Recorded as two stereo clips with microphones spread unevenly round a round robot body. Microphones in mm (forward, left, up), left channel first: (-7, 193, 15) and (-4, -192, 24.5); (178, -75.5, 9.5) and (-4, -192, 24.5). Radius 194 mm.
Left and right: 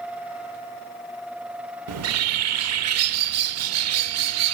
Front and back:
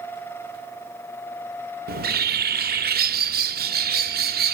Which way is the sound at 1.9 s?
120° right.